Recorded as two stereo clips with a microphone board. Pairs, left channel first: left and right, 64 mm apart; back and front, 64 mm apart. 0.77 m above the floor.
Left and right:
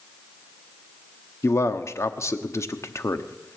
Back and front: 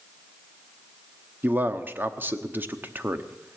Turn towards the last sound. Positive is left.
turn(degrees=55)